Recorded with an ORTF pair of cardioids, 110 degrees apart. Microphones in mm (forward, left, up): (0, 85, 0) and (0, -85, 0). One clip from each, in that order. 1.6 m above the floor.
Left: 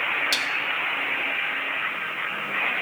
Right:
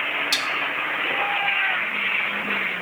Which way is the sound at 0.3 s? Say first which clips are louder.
Right 1 dB; straight ahead.